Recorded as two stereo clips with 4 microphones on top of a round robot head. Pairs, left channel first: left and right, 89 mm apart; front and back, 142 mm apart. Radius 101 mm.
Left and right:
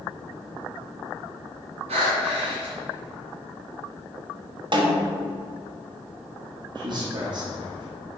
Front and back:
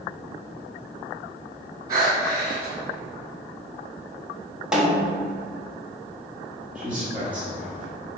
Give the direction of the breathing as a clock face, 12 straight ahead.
4 o'clock.